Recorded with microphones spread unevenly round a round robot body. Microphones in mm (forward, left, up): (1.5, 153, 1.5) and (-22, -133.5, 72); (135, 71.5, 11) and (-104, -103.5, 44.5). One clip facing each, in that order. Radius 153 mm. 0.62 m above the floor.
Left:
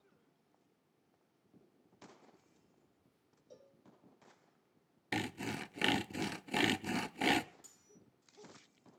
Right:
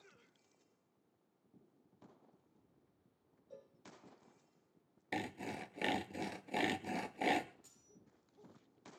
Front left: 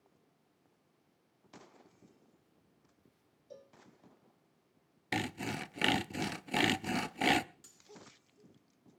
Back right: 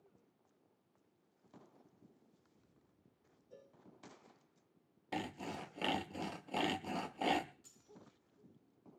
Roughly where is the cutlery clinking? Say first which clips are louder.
Left 2 dB, front left 5 dB; ahead left.